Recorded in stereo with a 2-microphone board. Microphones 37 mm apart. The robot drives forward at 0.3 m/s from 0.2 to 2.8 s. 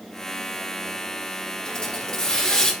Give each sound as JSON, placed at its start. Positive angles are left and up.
{"t": 1.6, "sound": "a hiss", "side_deg": 25, "distance_m": 1.3}